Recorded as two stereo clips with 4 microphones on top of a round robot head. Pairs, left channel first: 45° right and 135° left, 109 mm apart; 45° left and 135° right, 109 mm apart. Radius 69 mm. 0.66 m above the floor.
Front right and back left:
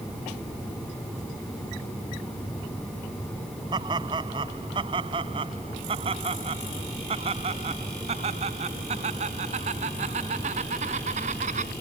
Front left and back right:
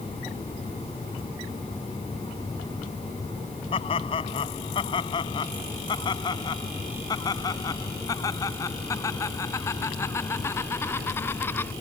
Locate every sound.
3.7 s laughter: 85° left; by 11.7 s 115° left